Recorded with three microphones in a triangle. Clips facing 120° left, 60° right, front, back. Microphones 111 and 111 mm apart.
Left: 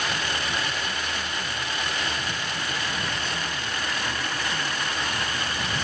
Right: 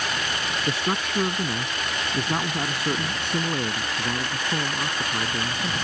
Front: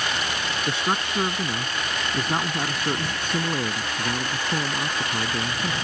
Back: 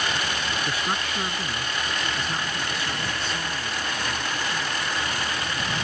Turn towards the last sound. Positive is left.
turn(degrees=-15)